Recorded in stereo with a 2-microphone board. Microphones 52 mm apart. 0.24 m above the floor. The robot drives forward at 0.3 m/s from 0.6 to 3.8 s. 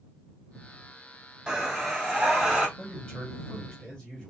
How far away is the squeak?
I don't hear a squeak.